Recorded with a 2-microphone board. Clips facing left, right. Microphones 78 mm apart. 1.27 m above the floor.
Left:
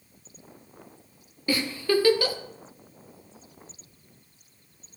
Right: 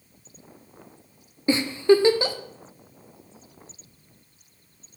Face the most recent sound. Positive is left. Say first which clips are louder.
# right 7 dB
turn(degrees=-25)  # may be behind; listen again after turning